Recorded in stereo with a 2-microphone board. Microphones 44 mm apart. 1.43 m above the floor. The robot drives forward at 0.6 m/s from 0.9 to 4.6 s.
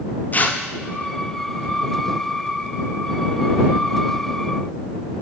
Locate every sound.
0.3 s tearing paper: 40° left (ahead or behind), 0.8 m